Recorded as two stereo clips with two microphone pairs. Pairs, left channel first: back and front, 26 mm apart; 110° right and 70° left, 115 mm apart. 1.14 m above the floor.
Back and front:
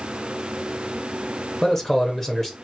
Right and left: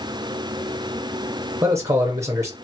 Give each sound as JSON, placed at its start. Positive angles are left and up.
{"t": 1.6, "sound": "a man speaking", "azimuth_deg": 110, "distance_m": 0.7}